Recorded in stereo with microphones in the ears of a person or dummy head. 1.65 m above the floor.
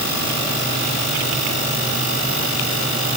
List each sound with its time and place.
Only background noise.